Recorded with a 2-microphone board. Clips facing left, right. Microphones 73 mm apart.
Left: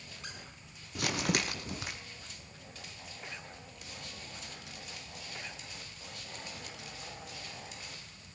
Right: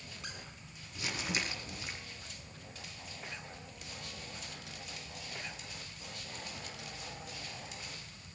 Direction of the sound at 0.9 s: 70° left (ahead or behind).